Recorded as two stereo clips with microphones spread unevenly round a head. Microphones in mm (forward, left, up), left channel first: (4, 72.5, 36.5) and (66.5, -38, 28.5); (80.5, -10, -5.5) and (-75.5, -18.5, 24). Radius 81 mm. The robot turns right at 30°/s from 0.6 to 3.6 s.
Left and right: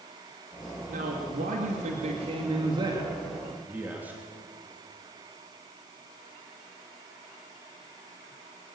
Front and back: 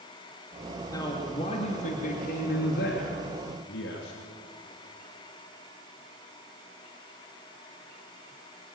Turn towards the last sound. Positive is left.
turn(degrees=15)